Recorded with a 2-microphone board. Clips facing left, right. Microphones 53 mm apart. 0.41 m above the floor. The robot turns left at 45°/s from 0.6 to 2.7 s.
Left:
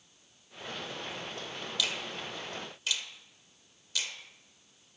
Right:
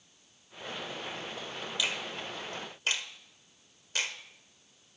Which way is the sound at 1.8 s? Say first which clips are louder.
Right 1 dB; 20° right (ahead or behind).